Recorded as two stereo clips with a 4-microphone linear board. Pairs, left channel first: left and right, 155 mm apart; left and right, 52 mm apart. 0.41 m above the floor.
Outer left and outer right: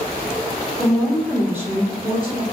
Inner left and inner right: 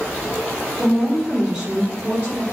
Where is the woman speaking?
15° left (ahead or behind), 1.1 m; by 2.4 s 40° right (ahead or behind), 1.3 m.